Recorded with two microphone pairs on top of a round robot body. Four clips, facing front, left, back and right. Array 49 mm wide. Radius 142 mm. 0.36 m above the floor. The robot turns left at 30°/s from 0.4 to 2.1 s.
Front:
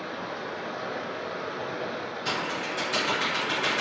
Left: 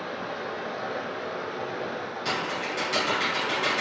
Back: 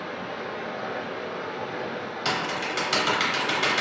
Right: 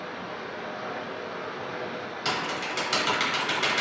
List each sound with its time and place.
0.0 s running water: 60° left, 1.6 m; by 3.8 s 10° left, 1.6 m
2.2 s typing on a keyboard: 140° right, 1.2 m